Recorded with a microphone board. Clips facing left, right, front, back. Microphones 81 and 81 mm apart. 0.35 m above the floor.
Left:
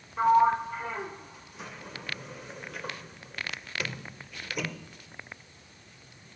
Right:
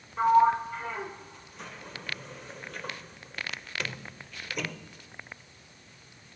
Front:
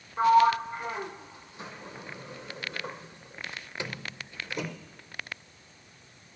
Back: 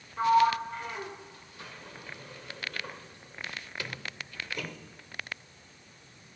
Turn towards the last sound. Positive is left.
turn(degrees=10)